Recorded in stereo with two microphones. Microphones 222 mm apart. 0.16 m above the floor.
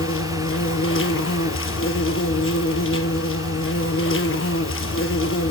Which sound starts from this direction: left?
An insect, at 0.0 s.